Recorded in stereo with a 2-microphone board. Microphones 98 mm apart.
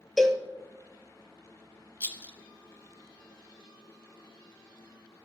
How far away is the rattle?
About 0.9 m.